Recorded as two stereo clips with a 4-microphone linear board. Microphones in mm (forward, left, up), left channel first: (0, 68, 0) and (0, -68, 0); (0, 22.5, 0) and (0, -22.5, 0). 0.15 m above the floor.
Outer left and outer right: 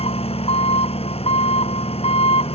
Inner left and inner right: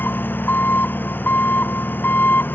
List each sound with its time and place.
0.0 s an engine running: 45° left (ahead or behind)